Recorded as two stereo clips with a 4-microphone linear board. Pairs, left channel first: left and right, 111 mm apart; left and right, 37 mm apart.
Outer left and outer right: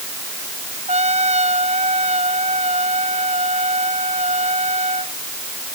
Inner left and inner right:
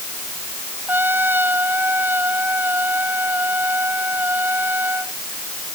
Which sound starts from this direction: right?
A trumpet, at 0.9 s.